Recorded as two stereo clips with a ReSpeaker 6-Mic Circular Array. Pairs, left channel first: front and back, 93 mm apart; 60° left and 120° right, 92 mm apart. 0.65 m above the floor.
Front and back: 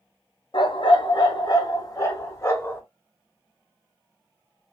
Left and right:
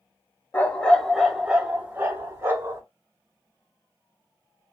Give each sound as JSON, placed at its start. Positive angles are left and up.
{"t": 0.5, "sound": "a dog barking", "azimuth_deg": -10, "distance_m": 0.8}